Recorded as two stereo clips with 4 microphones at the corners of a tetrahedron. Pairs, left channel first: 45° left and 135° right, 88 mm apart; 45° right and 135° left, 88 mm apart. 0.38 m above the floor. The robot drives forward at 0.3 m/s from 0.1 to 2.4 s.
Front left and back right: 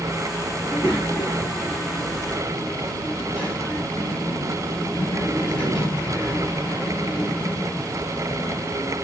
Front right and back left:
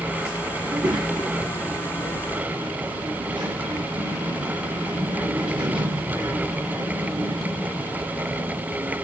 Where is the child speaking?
110° left, 4.5 m; by 9.0 s 120° left, 4.5 m.